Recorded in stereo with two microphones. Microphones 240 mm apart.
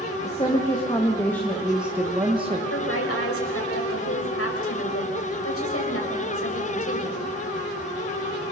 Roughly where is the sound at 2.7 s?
Left.